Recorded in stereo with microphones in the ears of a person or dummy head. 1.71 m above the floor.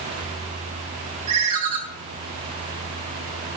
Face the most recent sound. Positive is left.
turn(degrees=-50)  # may be behind; listen again after turning